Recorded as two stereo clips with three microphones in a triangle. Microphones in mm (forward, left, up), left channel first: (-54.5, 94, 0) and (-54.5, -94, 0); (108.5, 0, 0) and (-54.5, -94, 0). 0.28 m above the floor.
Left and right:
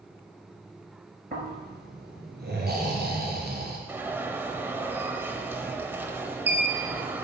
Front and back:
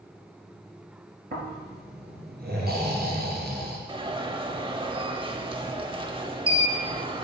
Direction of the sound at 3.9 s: 155° right.